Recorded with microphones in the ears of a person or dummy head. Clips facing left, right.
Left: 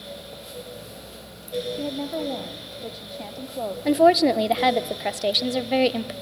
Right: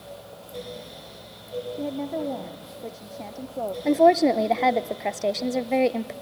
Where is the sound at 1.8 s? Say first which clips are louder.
Even; 10° left (ahead or behind), 0.9 m.